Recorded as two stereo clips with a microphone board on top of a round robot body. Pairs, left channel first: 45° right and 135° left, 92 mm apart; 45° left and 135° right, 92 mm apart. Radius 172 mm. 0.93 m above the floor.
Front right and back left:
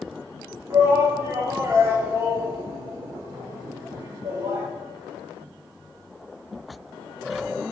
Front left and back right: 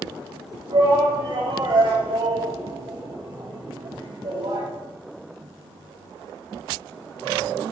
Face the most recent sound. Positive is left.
turn(degrees=-165)